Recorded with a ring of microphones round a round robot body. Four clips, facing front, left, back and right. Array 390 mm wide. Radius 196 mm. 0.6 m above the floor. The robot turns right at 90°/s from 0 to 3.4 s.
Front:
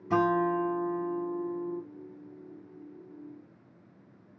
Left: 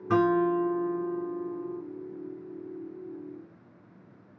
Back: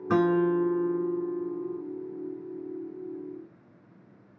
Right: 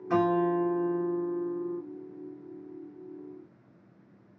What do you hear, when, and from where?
0.1 s a guitar: 145° left, 3 m; by 1.8 s 60° right, 3 m